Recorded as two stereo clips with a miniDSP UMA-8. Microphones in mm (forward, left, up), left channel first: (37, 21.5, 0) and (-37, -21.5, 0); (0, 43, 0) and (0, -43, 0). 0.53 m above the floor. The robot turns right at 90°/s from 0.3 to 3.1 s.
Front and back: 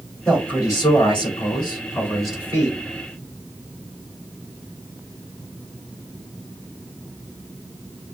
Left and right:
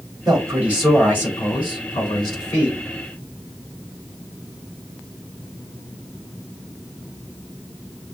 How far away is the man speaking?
About 4.5 m.